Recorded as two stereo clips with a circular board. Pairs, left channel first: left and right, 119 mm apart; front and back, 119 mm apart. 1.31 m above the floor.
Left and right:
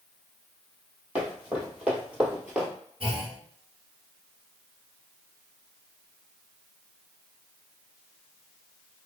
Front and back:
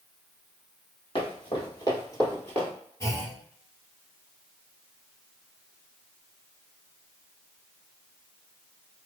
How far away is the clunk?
About 1.1 m.